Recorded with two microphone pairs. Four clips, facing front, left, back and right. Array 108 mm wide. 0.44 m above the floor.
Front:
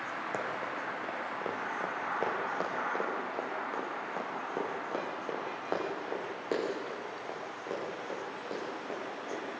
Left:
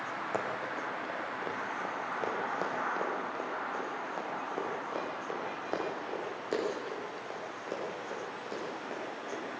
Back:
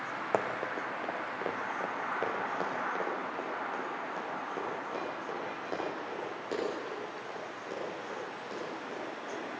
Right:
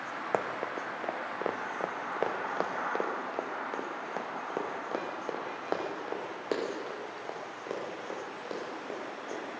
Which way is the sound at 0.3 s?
130° right.